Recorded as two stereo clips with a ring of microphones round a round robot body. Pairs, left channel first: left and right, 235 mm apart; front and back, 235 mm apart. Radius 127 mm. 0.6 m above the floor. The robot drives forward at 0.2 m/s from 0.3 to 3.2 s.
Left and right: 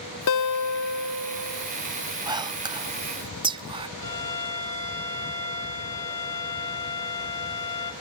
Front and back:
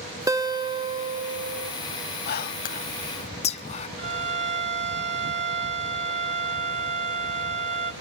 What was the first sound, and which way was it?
A guitar, 105° left.